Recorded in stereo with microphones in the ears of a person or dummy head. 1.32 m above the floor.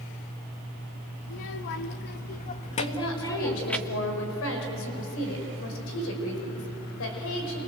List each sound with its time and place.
1.2 s a child speaking: 65° left (ahead or behind), 1.4 m; by 3.8 s centre (ahead or behind), 1.2 m
2.8 s a woman speaking: 70° left (ahead or behind), 5 m